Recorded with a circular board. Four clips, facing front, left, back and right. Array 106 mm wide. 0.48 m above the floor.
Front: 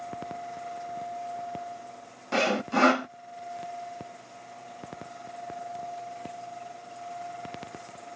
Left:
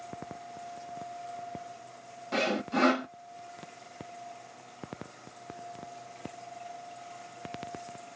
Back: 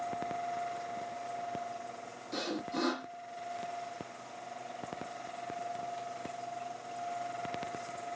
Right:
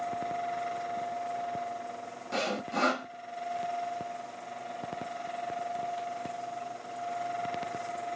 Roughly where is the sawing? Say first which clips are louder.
Left 3 dB, front 11 dB; ahead.